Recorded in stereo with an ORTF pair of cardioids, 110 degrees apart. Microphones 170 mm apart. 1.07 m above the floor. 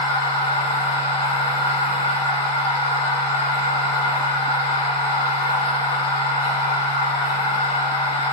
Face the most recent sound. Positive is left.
turn(degrees=35)